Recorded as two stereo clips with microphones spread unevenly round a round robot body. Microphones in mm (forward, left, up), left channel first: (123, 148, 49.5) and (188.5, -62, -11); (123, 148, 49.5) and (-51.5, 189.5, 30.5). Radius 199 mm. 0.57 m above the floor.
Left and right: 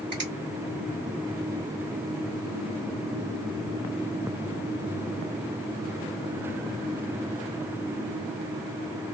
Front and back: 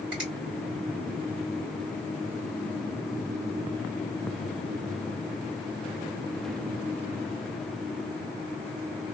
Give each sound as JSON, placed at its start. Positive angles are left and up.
{"t": 0.1, "sound": "a finger snap", "azimuth_deg": -135, "distance_m": 1.9}